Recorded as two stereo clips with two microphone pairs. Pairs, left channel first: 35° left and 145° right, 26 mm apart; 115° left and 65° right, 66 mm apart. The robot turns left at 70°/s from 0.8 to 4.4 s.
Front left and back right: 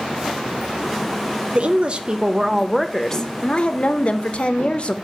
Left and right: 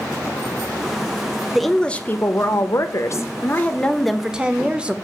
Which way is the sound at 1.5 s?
150° right.